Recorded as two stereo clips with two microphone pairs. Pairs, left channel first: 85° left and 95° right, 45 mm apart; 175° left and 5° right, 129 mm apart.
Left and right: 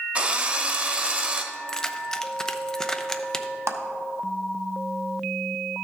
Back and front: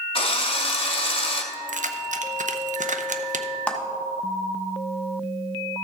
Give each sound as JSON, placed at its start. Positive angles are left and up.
{"t": 0.1, "sound": "a drill", "azimuth_deg": -150, "distance_m": 0.9}
{"t": 1.5, "sound": "keys jangling", "azimuth_deg": 10, "distance_m": 0.5}
{"t": 3.7, "sound": "a clap", "azimuth_deg": -105, "distance_m": 0.8}